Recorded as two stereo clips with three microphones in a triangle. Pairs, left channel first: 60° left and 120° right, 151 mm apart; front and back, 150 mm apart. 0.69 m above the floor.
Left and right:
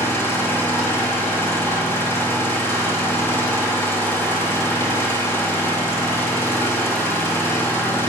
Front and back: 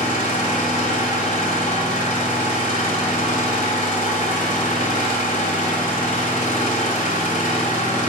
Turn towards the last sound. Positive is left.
turn(degrees=-15)